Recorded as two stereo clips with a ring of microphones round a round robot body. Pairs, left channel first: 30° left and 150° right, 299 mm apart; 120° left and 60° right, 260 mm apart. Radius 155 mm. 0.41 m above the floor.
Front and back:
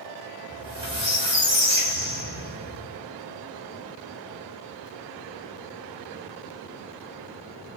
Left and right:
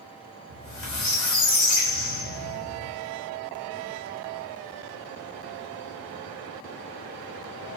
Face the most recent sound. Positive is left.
turn(degrees=140)